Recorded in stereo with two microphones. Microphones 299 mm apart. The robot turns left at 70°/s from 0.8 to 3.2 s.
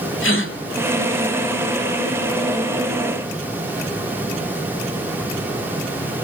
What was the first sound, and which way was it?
A gasp, 45° left (ahead or behind).